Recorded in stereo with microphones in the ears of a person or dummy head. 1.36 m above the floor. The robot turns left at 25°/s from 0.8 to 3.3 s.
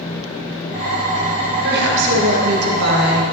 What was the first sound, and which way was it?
A woman speaking, 55° right.